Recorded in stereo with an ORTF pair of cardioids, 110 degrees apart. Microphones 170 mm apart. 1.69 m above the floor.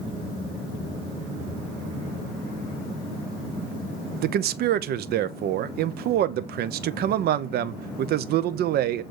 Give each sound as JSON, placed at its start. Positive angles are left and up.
{"t": 4.2, "sound": "a man speaking", "azimuth_deg": -65, "distance_m": 1.0}